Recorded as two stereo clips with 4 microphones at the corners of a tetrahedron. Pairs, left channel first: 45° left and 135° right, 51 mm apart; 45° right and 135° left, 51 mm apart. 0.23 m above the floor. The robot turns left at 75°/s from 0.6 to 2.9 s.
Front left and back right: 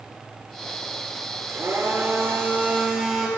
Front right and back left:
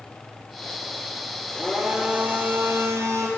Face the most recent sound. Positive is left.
turn(degrees=145)